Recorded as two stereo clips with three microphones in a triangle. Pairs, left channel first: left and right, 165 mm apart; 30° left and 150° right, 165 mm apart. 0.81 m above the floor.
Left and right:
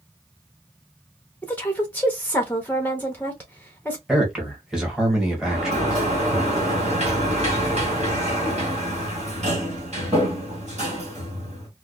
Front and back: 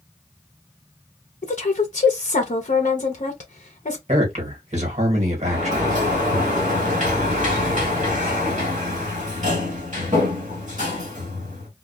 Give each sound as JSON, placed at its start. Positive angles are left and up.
{"t": 1.4, "sound": "a woman speaking", "azimuth_deg": 15, "distance_m": 0.7}
{"t": 4.1, "sound": "a man speaking", "azimuth_deg": -175, "distance_m": 1.4}
{"t": 5.4, "sound": "a sliding door", "azimuth_deg": -125, "distance_m": 1.5}